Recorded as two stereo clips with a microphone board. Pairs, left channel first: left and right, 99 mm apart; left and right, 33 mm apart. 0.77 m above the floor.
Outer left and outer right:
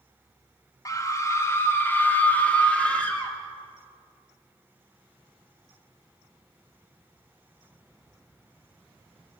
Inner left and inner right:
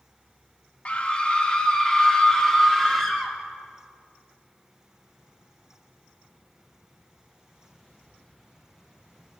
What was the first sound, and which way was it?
A scream, 35° left (ahead or behind).